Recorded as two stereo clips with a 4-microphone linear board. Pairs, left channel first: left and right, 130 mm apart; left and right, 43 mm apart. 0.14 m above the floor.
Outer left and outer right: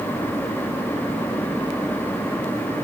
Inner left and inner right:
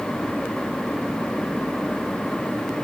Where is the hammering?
No hammering in this recording.